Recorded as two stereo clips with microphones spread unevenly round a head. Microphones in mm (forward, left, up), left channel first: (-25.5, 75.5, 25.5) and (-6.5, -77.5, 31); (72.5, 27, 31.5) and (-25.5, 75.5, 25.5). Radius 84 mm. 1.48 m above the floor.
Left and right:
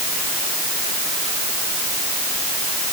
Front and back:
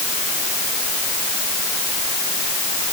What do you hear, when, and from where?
Only background noise.